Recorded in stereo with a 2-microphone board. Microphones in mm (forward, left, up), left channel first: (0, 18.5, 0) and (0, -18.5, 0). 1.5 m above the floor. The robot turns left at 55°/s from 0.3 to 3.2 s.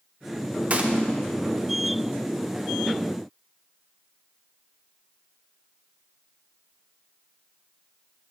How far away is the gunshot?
About 1.1 m.